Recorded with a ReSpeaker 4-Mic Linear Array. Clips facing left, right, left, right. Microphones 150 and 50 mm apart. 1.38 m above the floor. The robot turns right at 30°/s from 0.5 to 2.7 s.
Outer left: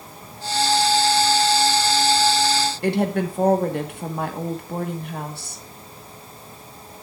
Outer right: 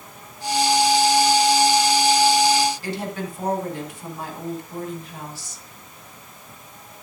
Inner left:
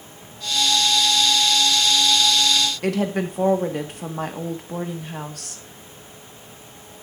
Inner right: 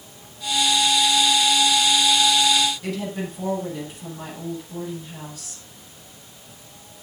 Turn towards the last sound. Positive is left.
turn(degrees=60)  # may be behind; listen again after turning